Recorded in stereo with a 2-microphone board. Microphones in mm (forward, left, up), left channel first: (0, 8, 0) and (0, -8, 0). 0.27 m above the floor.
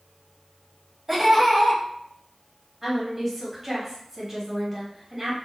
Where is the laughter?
20° right (ahead or behind), 1.1 m.